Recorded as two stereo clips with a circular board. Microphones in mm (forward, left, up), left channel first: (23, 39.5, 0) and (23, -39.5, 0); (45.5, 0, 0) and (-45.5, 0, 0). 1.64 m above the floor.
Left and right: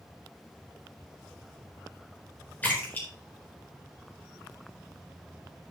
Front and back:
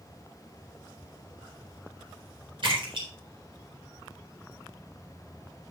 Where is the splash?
160° left, 4 m.